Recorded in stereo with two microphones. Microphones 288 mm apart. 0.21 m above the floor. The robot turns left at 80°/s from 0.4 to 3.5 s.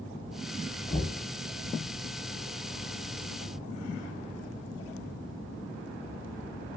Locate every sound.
0.9 s knocking: 15° left (ahead or behind), 0.7 m; by 1.2 s 10° left (ahead or behind), 0.7 m